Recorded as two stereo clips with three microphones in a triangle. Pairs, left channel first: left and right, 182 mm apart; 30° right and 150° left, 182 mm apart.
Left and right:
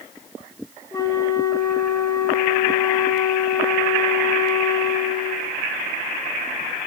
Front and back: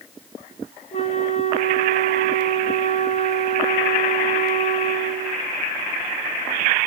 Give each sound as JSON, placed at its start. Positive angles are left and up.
{"t": 0.9, "sound": "a flute", "azimuth_deg": 20, "distance_m": 2.5}